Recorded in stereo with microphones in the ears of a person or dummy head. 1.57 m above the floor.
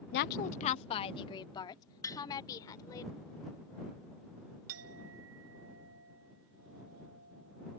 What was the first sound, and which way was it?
A woman speaking, 50° left (ahead or behind).